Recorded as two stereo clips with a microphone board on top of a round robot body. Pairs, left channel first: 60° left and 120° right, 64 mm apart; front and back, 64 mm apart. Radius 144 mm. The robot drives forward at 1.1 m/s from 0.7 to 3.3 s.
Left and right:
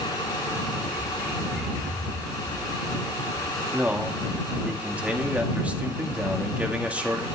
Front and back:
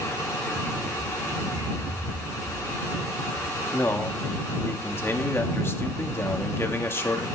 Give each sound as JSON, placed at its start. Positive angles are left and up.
{"t": 0.9, "sound": "a bird", "azimuth_deg": 135, "distance_m": 6.0}
{"t": 3.7, "sound": "a man speaking", "azimuth_deg": -55, "distance_m": 1.6}